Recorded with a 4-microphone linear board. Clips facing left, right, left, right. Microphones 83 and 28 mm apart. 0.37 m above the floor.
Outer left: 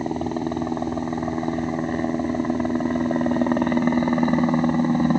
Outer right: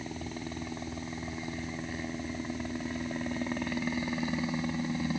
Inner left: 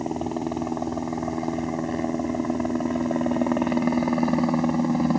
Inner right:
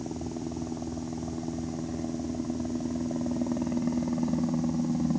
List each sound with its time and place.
0.0 s a helicopter: 55° left (ahead or behind)